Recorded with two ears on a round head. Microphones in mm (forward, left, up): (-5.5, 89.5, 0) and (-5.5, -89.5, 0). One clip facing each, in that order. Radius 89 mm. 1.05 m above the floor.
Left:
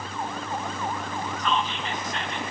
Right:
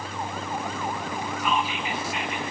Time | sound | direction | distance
1.4 | whispering | 10° right (ahead or behind) | 0.5 m